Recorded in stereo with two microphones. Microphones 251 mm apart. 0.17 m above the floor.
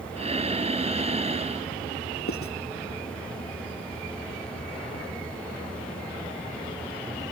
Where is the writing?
65° left (ahead or behind).